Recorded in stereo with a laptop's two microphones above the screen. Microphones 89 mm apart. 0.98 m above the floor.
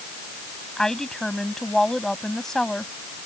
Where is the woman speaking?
5° left (ahead or behind).